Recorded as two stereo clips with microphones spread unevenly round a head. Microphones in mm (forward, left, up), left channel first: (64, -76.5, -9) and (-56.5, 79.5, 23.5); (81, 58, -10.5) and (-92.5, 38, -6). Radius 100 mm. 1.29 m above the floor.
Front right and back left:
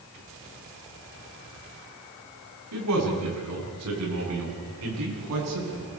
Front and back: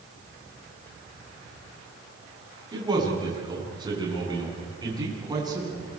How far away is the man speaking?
About 9.5 m.